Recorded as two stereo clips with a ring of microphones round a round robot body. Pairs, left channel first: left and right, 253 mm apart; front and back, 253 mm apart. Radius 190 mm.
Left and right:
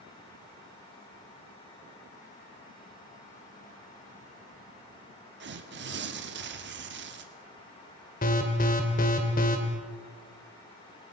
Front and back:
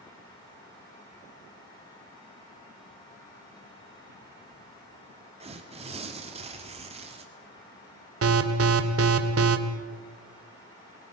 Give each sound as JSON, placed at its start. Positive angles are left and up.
{"t": 5.4, "sound": "tearing paper", "azimuth_deg": -120, "distance_m": 1.4}
{"t": 8.2, "sound": "an alarm", "azimuth_deg": 150, "distance_m": 1.6}